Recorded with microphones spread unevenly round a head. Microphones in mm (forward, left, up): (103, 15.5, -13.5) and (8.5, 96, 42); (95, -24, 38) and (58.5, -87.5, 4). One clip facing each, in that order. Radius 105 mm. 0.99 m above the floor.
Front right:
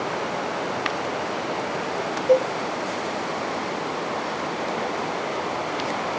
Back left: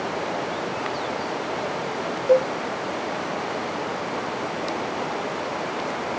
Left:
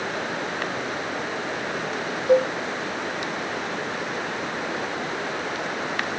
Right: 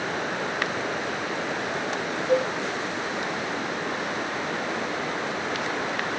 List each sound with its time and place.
2.3 s a cowbell: 65° left, 1.5 m